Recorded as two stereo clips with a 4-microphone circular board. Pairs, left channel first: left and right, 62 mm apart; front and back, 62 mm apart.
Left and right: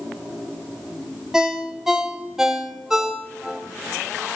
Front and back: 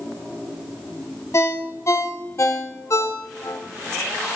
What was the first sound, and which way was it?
A ringtone, 10° right.